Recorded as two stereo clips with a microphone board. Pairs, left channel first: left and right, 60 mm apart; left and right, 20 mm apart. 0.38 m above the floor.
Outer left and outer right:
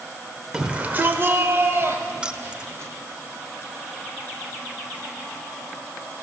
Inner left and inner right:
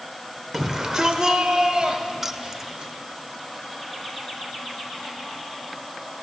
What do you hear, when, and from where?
0.5 s a shout: 15° right (ahead or behind), 1.0 m; by 2.9 s 45° right (ahead or behind), 3 m
2.2 s keys jangling: 15° right (ahead or behind), 0.5 m